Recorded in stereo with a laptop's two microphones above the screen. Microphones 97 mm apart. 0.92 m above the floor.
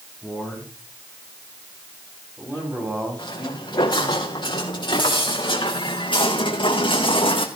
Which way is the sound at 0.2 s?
10° right (ahead or behind).